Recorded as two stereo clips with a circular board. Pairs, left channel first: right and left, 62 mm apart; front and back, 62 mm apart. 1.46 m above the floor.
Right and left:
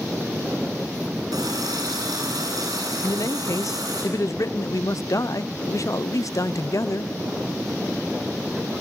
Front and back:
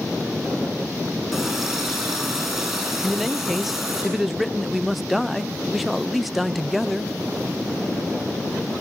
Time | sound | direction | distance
1.3 | a running tap | 90° left | 9.5 m
3.0 | a man speaking | 95° right | 0.7 m